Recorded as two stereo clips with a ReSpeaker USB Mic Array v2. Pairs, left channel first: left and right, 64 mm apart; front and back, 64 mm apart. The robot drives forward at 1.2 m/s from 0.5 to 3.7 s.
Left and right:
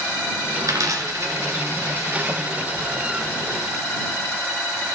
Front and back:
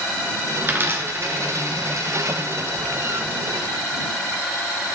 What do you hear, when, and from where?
0.6 s a dropped coin: 110° right, 2 m; by 2.5 s 145° right, 3.5 m